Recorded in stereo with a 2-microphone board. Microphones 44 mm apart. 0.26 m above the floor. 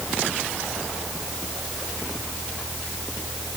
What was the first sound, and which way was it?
Only background noise.